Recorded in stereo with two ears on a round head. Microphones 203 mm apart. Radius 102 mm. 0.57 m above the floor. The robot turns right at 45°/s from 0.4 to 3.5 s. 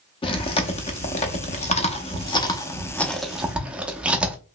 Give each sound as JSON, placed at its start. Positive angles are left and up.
{"t": 0.2, "sound": "chewing", "side_deg": 25, "distance_m": 0.6}